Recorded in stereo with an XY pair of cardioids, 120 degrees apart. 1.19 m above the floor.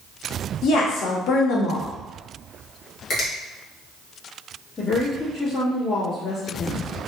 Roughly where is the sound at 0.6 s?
Ahead left.